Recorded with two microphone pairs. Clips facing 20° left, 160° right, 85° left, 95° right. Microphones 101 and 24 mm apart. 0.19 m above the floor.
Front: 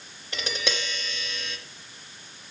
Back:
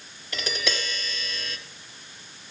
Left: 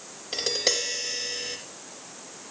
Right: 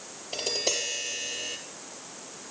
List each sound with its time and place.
0.3 s tapping: 85° left, 3 m